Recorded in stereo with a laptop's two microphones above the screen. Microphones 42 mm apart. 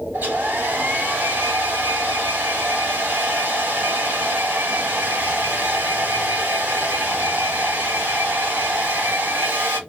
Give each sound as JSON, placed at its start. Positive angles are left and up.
{"t": 0.1, "sound": "a hair dryer", "side_deg": -60, "distance_m": 3.0}